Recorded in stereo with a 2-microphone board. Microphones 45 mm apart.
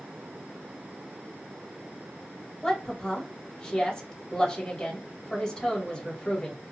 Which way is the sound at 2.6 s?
15° left (ahead or behind).